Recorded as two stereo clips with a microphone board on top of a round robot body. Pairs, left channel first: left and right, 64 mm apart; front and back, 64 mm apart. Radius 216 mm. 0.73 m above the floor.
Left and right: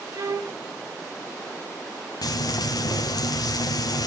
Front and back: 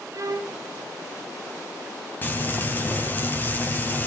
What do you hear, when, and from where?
0.1 s a violin: 135° right, 0.9 m
2.2 s frying: 65° left, 1.8 m